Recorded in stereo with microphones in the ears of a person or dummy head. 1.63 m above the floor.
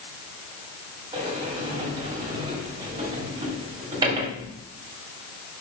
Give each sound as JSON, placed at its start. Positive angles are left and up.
{"t": 1.1, "sound": "a sliding door", "side_deg": -25, "distance_m": 1.9}